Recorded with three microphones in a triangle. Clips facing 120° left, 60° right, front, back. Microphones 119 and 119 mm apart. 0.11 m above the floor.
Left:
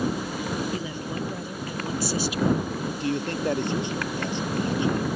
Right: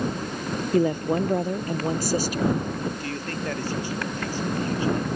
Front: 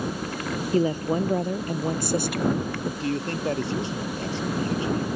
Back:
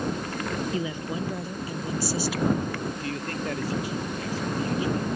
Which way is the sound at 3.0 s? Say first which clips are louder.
Left 4 dB, front 4 dB; 55° left.